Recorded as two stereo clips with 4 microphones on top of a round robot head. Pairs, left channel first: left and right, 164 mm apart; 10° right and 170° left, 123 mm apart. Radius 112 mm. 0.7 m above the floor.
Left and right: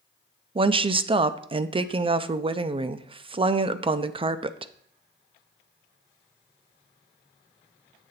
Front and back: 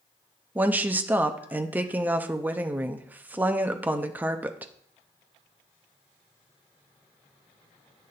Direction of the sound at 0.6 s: 120° right.